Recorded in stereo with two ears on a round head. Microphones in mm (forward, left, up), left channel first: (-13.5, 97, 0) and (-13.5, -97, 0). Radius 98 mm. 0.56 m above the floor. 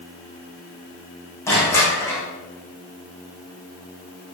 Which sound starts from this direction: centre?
Crushing, at 1.5 s.